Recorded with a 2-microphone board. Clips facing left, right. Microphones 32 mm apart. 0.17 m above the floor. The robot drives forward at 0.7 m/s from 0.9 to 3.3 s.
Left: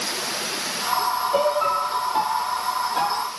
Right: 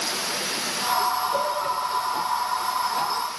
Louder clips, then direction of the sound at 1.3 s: Left 4 dB; 65° left (ahead or behind).